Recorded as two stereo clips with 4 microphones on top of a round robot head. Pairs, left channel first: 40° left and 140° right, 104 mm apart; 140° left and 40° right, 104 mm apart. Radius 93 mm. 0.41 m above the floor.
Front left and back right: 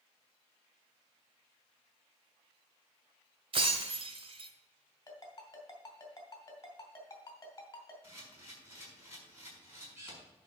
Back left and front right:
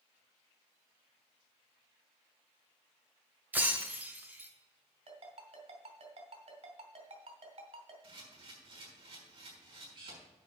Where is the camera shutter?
70° right, 5.5 m.